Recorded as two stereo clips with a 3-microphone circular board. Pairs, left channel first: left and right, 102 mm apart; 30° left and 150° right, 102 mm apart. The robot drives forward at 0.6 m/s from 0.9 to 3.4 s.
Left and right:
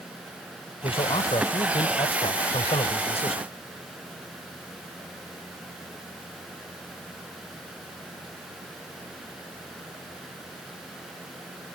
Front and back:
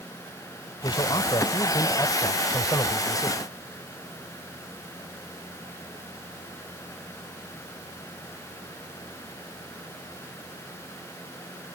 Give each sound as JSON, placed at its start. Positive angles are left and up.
{"t": 0.8, "sound": "a man speaking", "azimuth_deg": 70}